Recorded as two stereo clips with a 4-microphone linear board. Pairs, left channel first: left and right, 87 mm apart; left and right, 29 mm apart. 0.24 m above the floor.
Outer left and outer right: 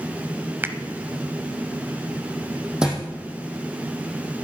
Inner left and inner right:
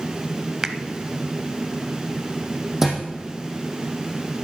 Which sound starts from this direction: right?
A finger snap, at 0.6 s.